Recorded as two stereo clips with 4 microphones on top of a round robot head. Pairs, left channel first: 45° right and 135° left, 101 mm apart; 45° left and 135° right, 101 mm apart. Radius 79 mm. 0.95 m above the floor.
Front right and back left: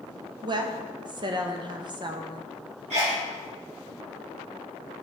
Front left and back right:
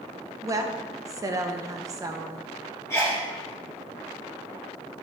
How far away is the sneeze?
About 3.5 m.